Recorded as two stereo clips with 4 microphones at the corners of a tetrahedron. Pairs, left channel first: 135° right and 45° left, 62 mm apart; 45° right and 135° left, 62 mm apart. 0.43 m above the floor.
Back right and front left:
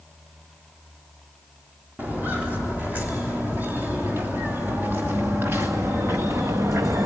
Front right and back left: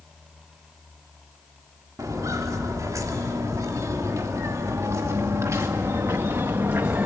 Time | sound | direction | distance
2.0 | footsteps | 110° left | 4.5 m